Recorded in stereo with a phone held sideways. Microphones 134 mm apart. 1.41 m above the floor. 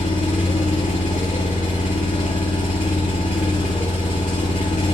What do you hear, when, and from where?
0.0 s an engine running: 75° left (ahead or behind), 7.5 m